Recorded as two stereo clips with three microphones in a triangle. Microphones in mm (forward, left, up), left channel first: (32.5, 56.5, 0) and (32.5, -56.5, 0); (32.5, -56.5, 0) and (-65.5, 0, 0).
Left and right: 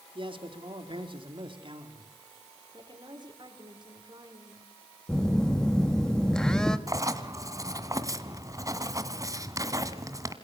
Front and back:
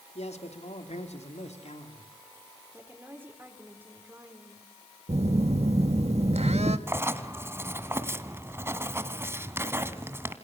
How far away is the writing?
About 1.9 m.